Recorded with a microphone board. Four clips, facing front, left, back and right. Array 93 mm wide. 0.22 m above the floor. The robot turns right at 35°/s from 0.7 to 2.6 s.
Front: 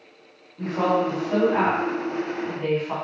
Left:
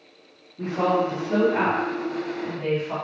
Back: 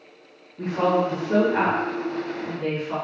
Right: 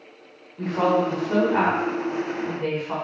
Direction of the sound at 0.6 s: 90° right.